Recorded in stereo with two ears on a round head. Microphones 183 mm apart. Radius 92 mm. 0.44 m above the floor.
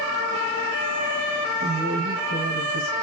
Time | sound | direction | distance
1.6 | a woman speaking | 45° right (ahead or behind) | 2.5 m